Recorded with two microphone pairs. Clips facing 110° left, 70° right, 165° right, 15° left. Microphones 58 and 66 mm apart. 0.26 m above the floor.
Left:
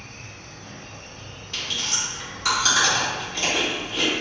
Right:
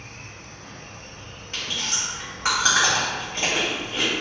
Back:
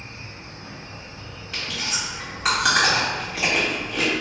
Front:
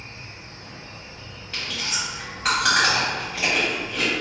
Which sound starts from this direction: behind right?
An insect, at 0.0 s.